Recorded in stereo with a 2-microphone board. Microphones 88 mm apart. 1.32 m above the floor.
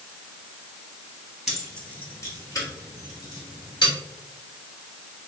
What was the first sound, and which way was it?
Keys jangling, 5° right (ahead or behind).